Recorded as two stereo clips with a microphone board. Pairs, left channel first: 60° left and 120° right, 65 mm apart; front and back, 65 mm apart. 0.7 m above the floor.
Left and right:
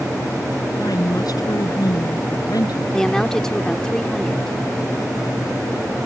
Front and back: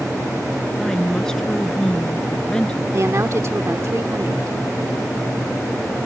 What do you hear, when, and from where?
0.8 s a woman speaking: 85° left; by 2.8 s 75° left
2.9 s a woman speaking: 145° left